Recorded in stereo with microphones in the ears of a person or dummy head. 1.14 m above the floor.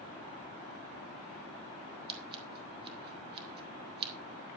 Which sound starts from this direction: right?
Scissors, at 2.1 s.